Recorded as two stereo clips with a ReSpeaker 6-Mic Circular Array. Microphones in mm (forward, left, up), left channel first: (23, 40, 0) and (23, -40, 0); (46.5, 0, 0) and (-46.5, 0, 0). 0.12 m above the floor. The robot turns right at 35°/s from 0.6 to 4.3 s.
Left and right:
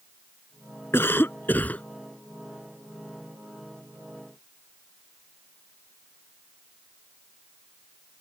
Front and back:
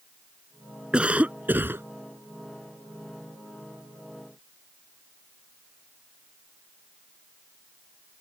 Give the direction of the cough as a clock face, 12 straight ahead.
8 o'clock.